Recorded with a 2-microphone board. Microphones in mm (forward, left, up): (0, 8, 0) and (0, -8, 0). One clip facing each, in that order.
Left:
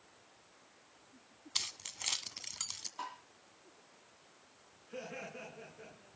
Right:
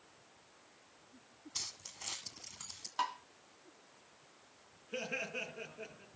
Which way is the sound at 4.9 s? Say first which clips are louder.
Right 5 dB; 60° right (ahead or behind).